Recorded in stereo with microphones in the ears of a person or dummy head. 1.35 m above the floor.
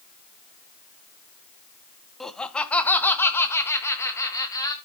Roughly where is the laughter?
Centre.